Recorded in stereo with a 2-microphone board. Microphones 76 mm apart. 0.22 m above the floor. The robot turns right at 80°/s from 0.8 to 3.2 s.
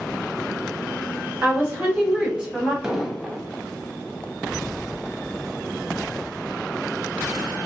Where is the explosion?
10° right (ahead or behind), 0.6 m; by 3.4 s 5° left (ahead or behind), 0.6 m.